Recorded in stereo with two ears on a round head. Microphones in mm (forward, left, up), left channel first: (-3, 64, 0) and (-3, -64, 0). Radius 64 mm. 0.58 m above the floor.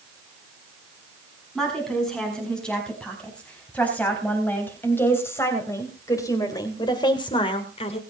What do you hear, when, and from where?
1.6 s a woman speaking: 5° left (ahead or behind), 6 m; by 8.0 s 45° left (ahead or behind), 2.5 m